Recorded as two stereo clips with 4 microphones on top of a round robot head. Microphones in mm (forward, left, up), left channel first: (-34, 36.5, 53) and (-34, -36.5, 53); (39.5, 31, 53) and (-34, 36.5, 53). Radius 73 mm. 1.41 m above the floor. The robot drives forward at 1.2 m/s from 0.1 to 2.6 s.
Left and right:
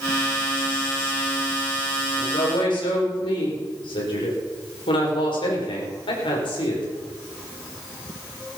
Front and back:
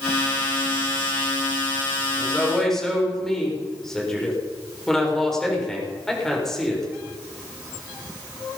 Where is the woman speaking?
75° left, 6 m; by 6.9 s 80° left, 6 m.